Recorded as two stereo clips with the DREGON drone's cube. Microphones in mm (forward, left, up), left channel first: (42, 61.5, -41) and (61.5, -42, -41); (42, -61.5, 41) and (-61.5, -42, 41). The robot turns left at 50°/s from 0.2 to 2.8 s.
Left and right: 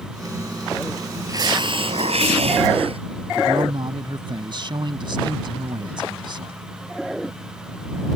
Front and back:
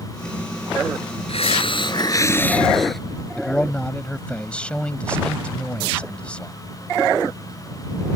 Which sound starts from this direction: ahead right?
A hiss, at 1.3 s.